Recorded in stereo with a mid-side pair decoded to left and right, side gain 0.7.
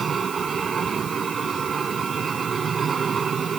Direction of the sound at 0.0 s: 30° right.